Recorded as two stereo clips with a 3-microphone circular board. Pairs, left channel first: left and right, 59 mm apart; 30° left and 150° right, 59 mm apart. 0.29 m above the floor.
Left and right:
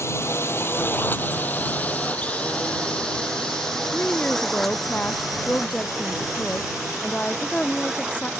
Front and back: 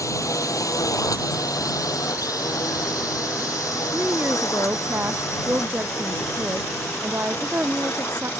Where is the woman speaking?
160° left.